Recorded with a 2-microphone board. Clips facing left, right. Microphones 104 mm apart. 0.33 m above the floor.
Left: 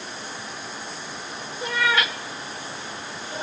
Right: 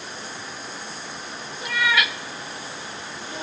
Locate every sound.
1.6 s a cat meowing: 35° left (ahead or behind), 0.9 m; by 3.4 s 30° left (ahead or behind), 1.0 m